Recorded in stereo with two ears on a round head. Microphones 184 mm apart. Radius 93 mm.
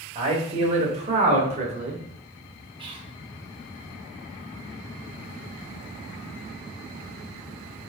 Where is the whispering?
25° right (ahead or behind), 0.9 m.